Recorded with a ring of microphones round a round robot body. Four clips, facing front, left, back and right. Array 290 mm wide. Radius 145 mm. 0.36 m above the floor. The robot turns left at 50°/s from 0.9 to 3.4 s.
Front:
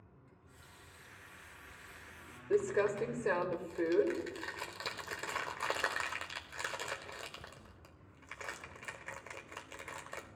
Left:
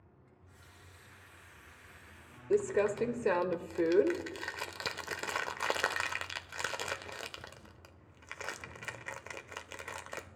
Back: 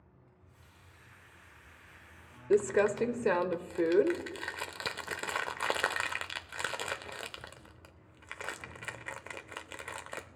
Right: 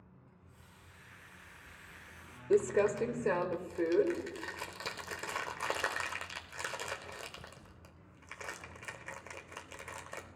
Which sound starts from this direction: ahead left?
A running tap, at 0.3 s.